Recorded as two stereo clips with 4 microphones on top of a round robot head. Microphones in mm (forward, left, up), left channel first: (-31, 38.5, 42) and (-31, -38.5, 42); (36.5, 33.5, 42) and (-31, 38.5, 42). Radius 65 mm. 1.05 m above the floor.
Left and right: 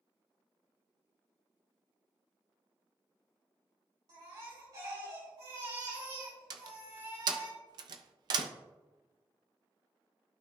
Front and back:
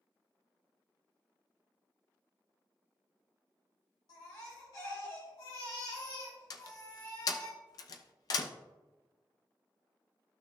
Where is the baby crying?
50° right, 4 m.